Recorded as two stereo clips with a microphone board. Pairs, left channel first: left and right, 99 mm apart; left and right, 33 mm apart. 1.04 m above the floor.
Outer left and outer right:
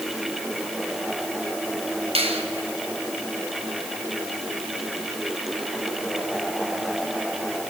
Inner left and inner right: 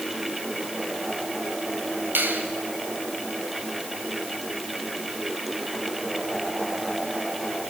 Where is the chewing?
I don't hear chewing.